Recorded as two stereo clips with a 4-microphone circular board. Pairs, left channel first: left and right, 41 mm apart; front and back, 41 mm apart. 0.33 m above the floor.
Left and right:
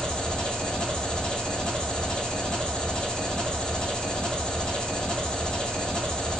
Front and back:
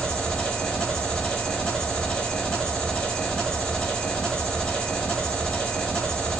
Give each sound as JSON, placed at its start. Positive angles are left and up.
{"t": 0.0, "sound": "an engine running", "azimuth_deg": 45, "distance_m": 0.9}